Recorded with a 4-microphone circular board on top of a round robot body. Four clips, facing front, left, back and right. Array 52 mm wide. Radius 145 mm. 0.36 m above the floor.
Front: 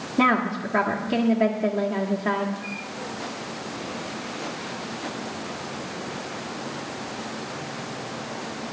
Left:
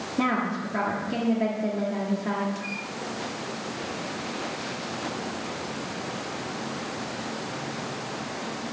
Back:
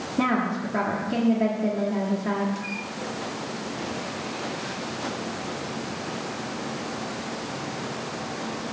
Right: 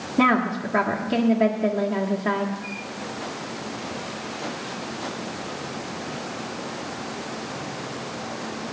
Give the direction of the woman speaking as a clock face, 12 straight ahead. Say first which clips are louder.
Right 6 dB, front 3 dB; 1 o'clock.